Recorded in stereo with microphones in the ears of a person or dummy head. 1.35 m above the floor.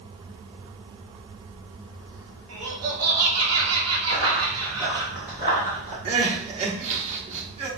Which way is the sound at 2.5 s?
75° right (ahead or behind).